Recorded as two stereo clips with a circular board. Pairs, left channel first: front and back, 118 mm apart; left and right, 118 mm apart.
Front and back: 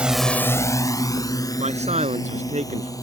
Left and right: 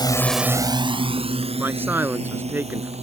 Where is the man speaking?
165° right.